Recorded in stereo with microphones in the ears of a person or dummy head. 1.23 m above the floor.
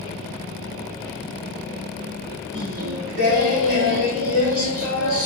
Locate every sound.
2.5 s singing: 65° right (ahead or behind), 2.5 m